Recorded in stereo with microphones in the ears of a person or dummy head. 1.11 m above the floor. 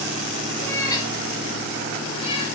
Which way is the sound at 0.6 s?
15° left (ahead or behind).